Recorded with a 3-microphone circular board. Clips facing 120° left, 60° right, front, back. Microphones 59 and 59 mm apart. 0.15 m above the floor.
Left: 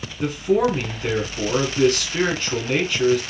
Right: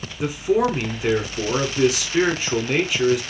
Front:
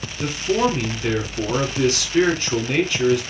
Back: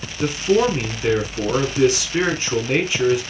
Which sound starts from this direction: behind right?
A man speaking, at 0.2 s.